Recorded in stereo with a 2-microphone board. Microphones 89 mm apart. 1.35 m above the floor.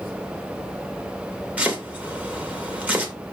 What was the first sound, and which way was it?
Chopping, 15° right (ahead or behind).